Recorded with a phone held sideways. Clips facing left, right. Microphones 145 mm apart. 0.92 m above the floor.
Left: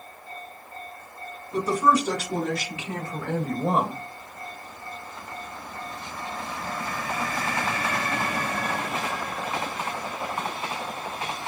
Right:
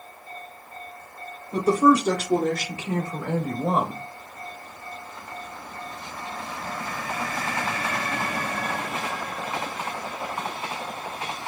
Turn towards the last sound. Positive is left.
turn(degrees=20)  # may be behind; listen again after turning